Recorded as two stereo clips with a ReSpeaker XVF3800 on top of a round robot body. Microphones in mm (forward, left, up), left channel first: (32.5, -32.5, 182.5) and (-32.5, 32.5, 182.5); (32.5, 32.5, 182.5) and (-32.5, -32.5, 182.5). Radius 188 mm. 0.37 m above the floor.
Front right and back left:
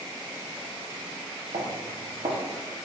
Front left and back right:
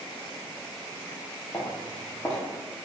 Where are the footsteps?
120° left, 1.2 m.